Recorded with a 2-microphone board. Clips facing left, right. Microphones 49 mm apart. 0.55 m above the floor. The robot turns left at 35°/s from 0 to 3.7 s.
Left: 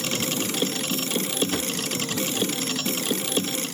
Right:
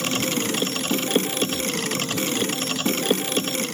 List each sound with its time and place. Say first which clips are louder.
1.5 s a drawer: right 1 dB; 60° left (ahead or behind), 0.7 m